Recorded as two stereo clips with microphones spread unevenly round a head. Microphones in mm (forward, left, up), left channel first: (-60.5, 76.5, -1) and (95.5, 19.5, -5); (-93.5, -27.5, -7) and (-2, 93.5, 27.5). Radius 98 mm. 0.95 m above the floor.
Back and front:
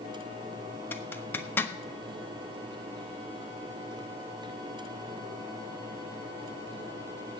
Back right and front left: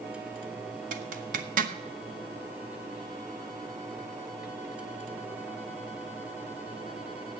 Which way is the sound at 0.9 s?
85° left.